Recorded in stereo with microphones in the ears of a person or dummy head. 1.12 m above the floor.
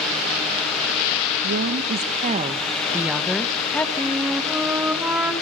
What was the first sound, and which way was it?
A woman speaking, 65° right (ahead or behind).